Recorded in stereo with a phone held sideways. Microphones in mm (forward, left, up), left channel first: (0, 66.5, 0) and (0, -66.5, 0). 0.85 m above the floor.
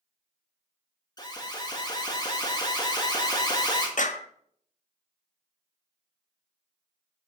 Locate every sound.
1.2 s an alarm: 30° left (ahead or behind), 1.8 m
4.0 s a clap: 70° left (ahead or behind), 0.9 m